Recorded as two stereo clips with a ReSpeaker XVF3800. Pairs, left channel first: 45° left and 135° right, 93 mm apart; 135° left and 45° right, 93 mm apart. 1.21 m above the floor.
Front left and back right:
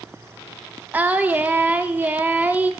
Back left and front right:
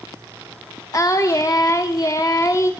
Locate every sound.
0.9 s singing: 165° left, 0.9 m